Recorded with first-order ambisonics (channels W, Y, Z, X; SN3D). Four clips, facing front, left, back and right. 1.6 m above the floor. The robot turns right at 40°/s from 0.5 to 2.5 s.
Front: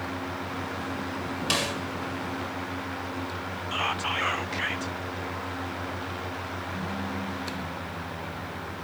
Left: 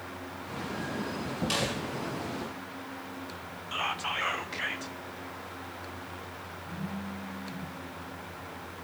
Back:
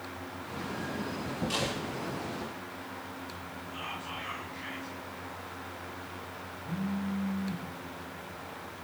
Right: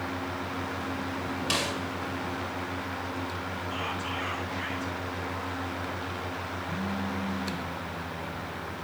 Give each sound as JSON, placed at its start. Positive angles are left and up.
{"t": 1.5, "sound": "a snare drum", "azimuth_deg": -20, "distance_m": 2.5}
{"t": 3.7, "sound": "whispering", "azimuth_deg": 20, "distance_m": 0.9}
{"t": 6.7, "sound": "a phone buzzing", "azimuth_deg": 175, "distance_m": 5.5}